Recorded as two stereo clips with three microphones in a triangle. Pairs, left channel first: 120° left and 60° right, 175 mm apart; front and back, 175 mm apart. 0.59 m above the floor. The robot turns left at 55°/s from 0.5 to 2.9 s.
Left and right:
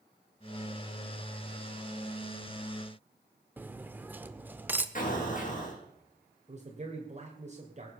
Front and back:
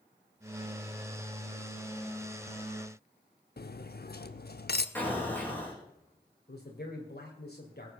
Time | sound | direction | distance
3.6 | cutlery clinking | 20° left | 0.8 m
5.0 | an explosion | 80° left | 5 m
6.5 | a man speaking | 15° right | 2 m